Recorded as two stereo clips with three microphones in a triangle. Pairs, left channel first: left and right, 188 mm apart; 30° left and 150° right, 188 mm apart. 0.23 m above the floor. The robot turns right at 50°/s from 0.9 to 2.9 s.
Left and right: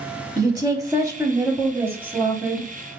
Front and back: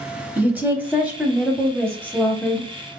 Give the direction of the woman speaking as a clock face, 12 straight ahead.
3 o'clock.